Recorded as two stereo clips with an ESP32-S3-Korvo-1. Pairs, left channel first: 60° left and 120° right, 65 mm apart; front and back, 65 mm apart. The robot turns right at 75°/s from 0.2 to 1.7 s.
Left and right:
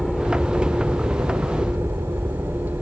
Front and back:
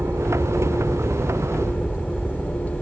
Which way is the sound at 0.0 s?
145° left.